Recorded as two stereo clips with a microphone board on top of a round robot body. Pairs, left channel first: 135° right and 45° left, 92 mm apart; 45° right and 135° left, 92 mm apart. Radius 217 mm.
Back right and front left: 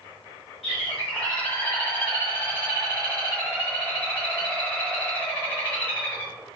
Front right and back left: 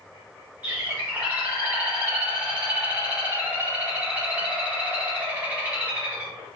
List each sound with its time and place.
0.6 s a bird: 155° right, 1.4 m